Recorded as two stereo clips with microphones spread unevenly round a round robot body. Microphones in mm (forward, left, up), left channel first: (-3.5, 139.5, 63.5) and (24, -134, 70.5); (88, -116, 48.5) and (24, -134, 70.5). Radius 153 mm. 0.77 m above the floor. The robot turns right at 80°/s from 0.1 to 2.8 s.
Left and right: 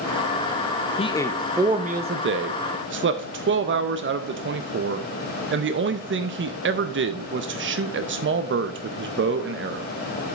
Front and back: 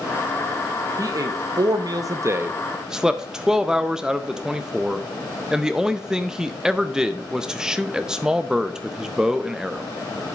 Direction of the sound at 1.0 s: 150° left.